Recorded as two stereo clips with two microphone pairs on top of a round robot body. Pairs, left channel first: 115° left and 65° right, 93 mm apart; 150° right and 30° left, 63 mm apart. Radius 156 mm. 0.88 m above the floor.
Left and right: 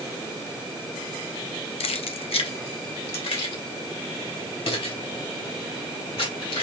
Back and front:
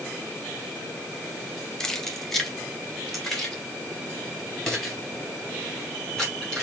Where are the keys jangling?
125° left, 0.5 m; by 6.6 s 120° left, 4.5 m.